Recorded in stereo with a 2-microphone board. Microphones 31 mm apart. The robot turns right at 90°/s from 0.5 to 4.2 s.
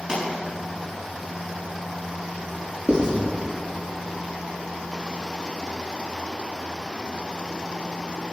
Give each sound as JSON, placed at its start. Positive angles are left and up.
{"t": 0.1, "sound": "a pop", "side_deg": -30, "distance_m": 7.0}
{"t": 2.9, "sound": "writing", "side_deg": -45, "distance_m": 6.0}